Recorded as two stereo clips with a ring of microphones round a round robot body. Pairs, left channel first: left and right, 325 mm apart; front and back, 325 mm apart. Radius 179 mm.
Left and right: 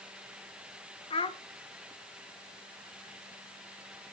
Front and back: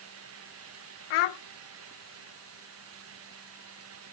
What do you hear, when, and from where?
1.1 s a child speaking: 15° left, 1.0 m